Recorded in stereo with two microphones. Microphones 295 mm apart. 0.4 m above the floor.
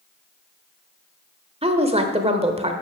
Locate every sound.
1.6 s a woman speaking: 20° right (ahead or behind), 1.0 m